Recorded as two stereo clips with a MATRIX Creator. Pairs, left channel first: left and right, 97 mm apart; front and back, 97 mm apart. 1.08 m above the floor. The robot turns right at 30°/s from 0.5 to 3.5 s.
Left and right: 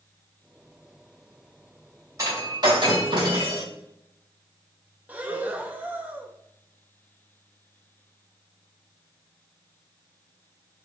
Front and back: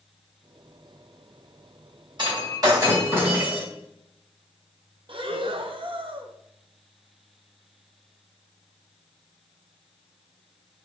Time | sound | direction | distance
2.2 | breaking glass | 145° right | 2.5 m
5.1 | breathing | 160° right | 0.6 m